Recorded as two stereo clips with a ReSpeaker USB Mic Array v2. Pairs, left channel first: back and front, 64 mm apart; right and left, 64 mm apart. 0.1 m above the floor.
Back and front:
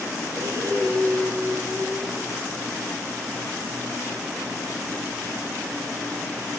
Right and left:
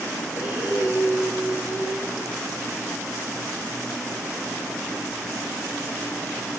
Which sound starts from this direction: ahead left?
Breathing, at 0.3 s.